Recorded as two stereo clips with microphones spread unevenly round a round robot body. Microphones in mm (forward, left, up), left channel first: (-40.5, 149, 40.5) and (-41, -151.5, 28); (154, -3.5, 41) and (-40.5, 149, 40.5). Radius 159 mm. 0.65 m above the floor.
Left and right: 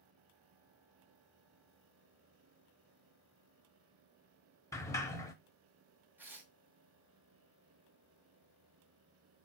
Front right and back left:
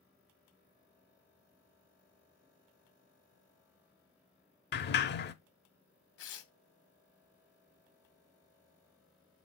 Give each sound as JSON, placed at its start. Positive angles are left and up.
{"t": 4.7, "sound": "a sliding door", "azimuth_deg": 10, "distance_m": 0.7}
{"t": 6.2, "sound": "tearing paper", "azimuth_deg": -5, "distance_m": 1.2}